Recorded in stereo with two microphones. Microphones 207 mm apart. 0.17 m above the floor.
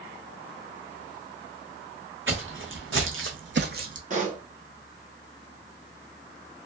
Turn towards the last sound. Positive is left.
turn(degrees=-40)  # may be behind; listen again after turning